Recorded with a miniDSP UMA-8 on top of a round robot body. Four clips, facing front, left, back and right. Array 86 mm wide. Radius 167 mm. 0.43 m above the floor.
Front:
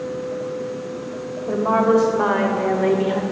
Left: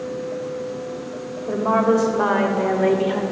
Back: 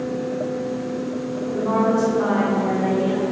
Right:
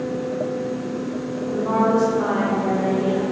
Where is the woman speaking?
45° left, 3 m; by 3.2 s 60° left, 2 m.